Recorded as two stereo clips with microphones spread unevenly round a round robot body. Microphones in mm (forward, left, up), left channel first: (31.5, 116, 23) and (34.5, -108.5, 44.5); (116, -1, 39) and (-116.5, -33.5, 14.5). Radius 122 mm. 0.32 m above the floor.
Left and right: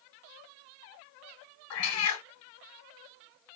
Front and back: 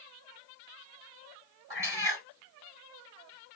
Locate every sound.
1.7 s a cat meowing: 110° left, 1.3 m